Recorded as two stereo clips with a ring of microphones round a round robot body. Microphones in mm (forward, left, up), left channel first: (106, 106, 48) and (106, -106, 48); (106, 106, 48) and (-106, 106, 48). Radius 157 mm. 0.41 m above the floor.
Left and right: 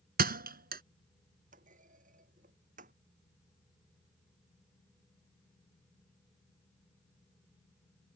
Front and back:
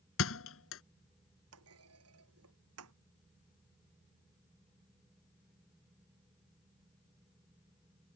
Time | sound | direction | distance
0.2 | a thud | 45° right | ?
1.5 | a clunk | 155° right | ?